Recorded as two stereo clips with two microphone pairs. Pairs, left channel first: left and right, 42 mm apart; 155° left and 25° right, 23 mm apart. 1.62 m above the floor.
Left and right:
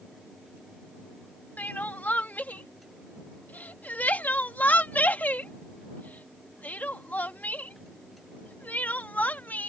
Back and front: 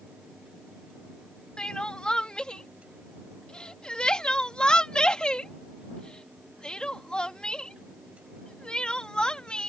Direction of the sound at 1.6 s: 120° left.